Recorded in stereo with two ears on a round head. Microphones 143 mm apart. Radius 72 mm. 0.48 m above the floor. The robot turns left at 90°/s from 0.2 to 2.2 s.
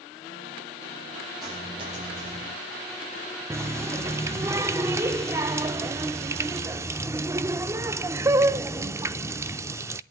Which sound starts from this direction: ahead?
A dropped coin, at 1.4 s.